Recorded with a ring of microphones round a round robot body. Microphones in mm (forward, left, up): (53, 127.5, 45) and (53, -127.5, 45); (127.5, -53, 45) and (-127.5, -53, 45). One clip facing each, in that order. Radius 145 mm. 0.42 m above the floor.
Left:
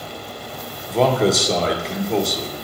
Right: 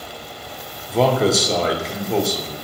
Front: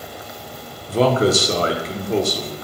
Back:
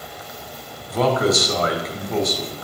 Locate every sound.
0.9 s a man speaking: straight ahead, 0.9 m